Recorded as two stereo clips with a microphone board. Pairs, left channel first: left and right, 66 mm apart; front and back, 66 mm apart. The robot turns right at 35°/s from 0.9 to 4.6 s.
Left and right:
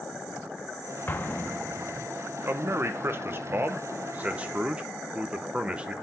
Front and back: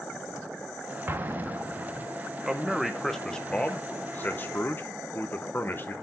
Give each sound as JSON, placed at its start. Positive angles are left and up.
{"t": 1.1, "sound": "an explosion", "azimuth_deg": 135, "distance_m": 0.5}
{"t": 2.4, "sound": "a man speaking", "azimuth_deg": -105, "distance_m": 0.7}